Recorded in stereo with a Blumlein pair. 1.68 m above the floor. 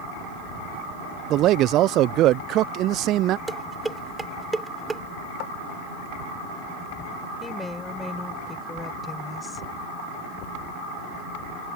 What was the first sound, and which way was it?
A man speaking, 35° right.